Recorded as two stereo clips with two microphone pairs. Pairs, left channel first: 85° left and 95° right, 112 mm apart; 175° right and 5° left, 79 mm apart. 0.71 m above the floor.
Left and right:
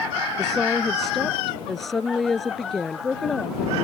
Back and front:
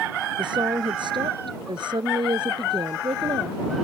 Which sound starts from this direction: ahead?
A woman speaking, at 0.4 s.